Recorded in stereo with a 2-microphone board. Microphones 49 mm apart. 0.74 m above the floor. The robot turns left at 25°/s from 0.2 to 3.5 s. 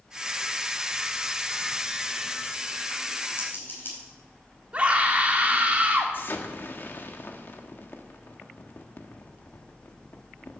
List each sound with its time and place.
3.4 s scissors: 50° left (ahead or behind), 4.5 m
4.7 s a scream: 30° right (ahead or behind), 1.7 m
6.1 s an explosion: 50° left (ahead or behind), 1.3 m